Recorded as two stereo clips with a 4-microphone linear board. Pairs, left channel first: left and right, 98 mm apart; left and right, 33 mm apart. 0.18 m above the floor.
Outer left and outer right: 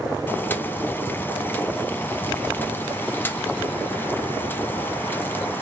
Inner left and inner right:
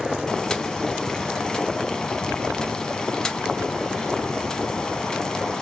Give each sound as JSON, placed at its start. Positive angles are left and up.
{"t": 0.3, "sound": "boiling", "side_deg": 20, "distance_m": 0.8}